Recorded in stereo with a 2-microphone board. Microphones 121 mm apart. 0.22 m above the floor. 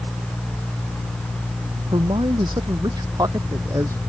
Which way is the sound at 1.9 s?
40° right (ahead or behind).